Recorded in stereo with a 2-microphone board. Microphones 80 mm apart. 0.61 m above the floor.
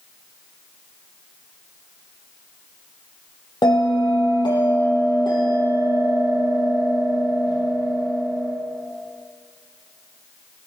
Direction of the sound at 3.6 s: 70° left (ahead or behind).